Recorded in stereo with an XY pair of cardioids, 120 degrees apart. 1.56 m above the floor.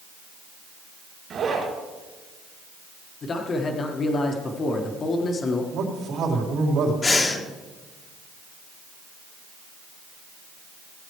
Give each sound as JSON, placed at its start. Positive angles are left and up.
{"t": 1.3, "sound": "a zipper", "azimuth_deg": -50, "distance_m": 4.5}
{"t": 3.2, "sound": "a man speaking", "azimuth_deg": 40, "distance_m": 1.5}
{"t": 5.7, "sound": "a man speaking", "azimuth_deg": -65, "distance_m": 4.0}
{"t": 7.0, "sound": "breathing", "azimuth_deg": 30, "distance_m": 1.4}